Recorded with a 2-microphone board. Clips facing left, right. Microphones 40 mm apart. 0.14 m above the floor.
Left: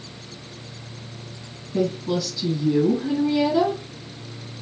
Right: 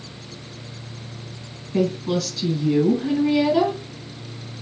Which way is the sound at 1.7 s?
65° right (ahead or behind).